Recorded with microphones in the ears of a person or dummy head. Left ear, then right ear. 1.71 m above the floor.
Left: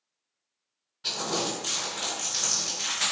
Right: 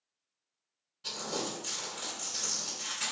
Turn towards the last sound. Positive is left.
turn(degrees=10)  # may be behind; listen again after turning